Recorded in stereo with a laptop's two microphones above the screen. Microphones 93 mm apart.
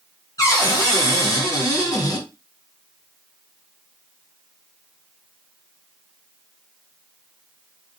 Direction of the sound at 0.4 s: 40° left (ahead or behind).